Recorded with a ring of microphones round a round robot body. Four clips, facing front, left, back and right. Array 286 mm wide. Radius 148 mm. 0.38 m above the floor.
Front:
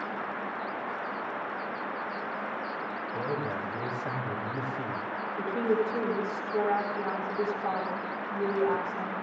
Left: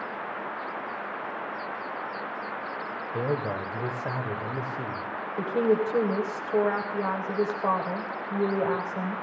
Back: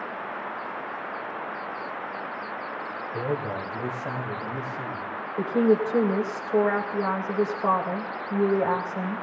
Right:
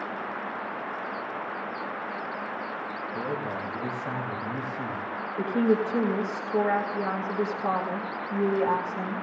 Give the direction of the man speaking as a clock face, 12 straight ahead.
8 o'clock.